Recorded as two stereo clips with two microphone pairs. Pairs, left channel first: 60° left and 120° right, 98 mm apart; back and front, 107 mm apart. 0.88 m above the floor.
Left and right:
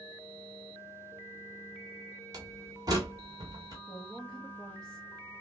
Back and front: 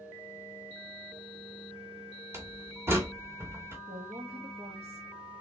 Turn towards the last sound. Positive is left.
turn(degrees=-20)